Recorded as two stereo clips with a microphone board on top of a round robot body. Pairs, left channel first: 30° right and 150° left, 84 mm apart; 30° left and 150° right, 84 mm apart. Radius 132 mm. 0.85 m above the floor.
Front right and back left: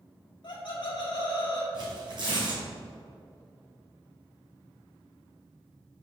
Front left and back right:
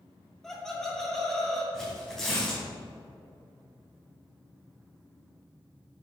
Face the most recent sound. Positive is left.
turn(degrees=115)